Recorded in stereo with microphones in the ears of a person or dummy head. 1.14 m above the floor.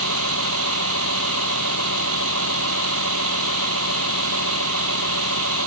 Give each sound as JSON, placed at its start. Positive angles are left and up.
{"t": 0.0, "sound": "a vehicle", "side_deg": -85}